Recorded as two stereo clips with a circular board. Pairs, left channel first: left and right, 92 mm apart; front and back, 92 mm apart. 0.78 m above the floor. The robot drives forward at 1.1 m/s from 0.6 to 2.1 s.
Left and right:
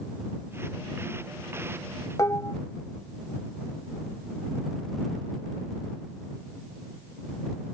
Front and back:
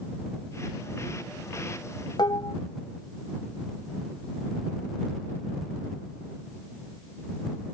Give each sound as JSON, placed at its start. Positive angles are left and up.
{"t": 2.2, "sound": "dishes clattering", "azimuth_deg": 35}